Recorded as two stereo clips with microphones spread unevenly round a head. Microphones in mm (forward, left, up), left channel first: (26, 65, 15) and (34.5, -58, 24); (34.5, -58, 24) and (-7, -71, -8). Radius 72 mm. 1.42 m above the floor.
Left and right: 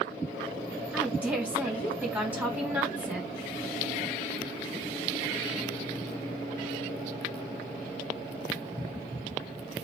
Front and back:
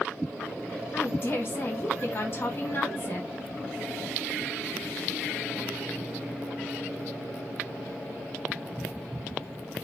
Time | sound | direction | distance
0.9 | a woman speaking | 10° right | 3.5 m